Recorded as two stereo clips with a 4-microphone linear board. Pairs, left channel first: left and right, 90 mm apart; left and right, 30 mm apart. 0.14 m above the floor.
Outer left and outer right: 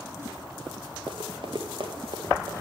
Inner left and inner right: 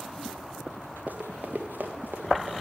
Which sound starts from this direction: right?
Running footsteps, at 1.1 s.